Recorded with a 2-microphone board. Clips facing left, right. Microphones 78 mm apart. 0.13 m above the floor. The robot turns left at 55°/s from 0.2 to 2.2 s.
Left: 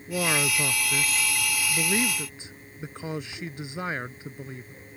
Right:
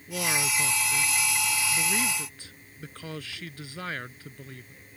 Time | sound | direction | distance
0.1 | a man speaking | 145° left | ?